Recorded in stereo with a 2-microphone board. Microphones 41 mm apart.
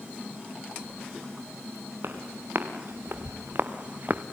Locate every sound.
2.0 s footsteps: 75° right (ahead or behind), 4.5 m; by 4.2 s 40° right (ahead or behind), 1.5 m